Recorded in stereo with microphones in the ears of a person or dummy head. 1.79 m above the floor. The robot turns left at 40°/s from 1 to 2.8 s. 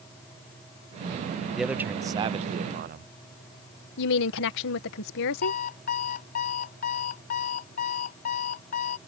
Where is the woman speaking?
65° left (ahead or behind).